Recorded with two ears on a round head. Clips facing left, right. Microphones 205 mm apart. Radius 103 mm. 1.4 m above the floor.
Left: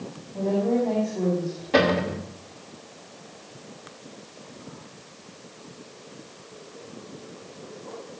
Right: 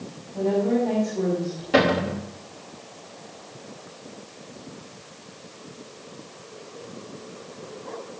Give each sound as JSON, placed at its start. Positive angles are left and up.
{"t": 0.3, "sound": "a woman speaking", "side_deg": -15, "distance_m": 5.0}
{"t": 1.7, "sound": "a cupboard door", "side_deg": -10, "distance_m": 3.0}